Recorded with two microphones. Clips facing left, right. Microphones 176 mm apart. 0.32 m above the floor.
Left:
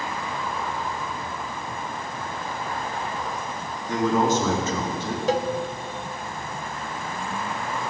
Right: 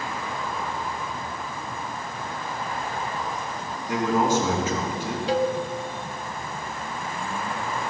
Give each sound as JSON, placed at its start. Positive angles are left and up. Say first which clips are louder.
{"t": 3.9, "sound": "a man speaking", "louder": "left 1 dB", "side_deg": -10, "distance_m": 4.0}
{"t": 5.3, "sound": "a cowbell", "louder": "right 1 dB", "side_deg": 45, "distance_m": 0.5}